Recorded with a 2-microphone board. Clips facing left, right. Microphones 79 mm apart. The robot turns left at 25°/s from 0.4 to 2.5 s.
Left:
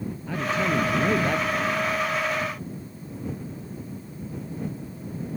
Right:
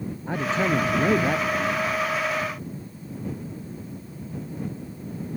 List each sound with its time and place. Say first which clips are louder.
0.3 s a man speaking: right 2 dB; 145° right; by 1.9 s straight behind